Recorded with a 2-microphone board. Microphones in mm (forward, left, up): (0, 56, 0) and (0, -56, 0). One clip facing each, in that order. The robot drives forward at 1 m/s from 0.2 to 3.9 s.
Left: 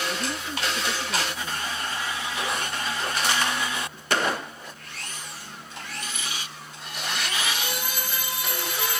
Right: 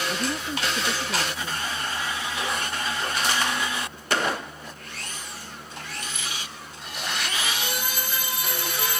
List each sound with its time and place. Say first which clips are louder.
0.1 s a woman speaking: right 2 dB; 15° right (ahead or behind); by 1.7 s 10° right (ahead or behind)